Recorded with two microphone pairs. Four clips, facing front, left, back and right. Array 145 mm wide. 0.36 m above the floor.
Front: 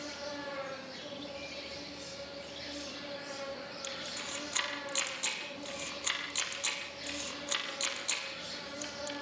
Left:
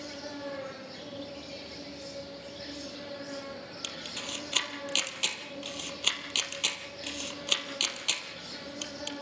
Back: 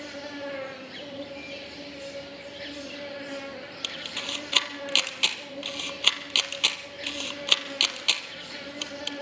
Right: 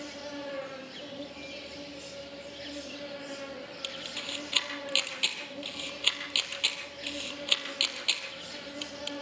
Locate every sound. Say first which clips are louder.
0.0 s an insect: even, back 5 dB; 160° right, 4 m
3.8 s a camera shutter: even, back 4 dB; 175° left, 2.5 m